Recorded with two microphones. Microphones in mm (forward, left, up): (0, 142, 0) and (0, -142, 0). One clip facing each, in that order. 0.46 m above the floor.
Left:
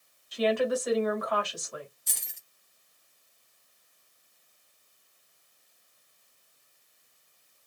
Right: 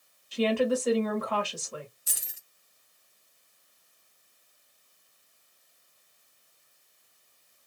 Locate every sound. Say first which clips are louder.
0.3 s a woman speaking: right 1 dB; 30° right (ahead or behind), 1.8 m
2.1 s keys jangling: right 1 dB; 5° right (ahead or behind), 1.0 m